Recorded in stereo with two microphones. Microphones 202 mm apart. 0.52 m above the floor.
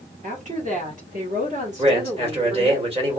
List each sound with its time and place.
0.2 s a woman speaking: 35° right (ahead or behind), 1.4 m; by 2.8 s 30° right (ahead or behind), 1.5 m
1.8 s a man speaking: 30° right (ahead or behind), 1.6 m